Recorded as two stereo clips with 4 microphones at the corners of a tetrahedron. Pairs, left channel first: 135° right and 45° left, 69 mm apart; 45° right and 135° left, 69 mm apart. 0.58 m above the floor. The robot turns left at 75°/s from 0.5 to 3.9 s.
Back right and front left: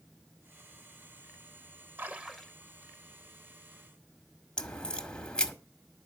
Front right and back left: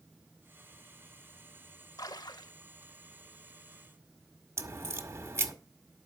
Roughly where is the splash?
Ahead.